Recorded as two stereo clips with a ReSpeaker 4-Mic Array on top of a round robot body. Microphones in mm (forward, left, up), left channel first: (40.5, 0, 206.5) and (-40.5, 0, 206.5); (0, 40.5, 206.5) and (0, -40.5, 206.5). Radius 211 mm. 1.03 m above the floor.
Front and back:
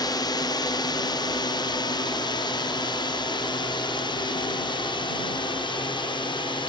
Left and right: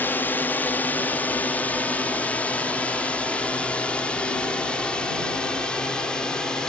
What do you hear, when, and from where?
0.0 s a drone: 25° left; by 6.7 s 10° left